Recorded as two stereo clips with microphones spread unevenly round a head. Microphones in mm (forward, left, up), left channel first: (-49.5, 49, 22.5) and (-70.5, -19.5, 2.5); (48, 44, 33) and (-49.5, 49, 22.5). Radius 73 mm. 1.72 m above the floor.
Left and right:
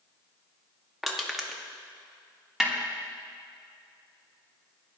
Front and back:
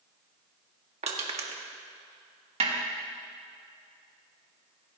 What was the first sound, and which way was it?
Crushing, 165° left.